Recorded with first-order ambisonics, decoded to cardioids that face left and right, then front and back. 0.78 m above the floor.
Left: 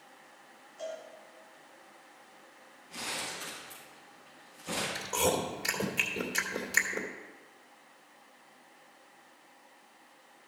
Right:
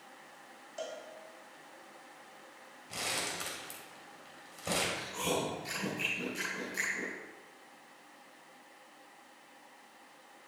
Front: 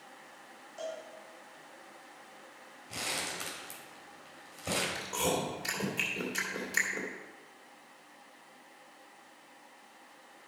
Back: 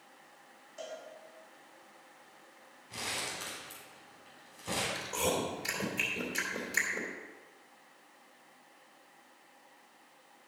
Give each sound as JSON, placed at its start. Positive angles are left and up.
{"t": 0.8, "sound": "a cowbell", "azimuth_deg": -80, "distance_m": 4.0}
{"t": 2.9, "sound": "crumpling", "azimuth_deg": -40, "distance_m": 3.5}
{"t": 5.0, "sound": "chewing", "azimuth_deg": 75, "distance_m": 2.5}